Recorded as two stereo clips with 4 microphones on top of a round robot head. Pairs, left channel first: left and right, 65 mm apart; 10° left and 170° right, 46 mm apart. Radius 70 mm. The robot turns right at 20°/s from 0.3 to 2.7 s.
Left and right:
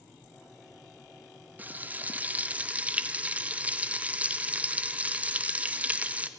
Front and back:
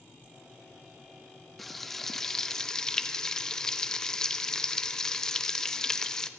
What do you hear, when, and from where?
1.6 s frying: 75° right, 1.2 m; by 6.3 s 55° right, 1.2 m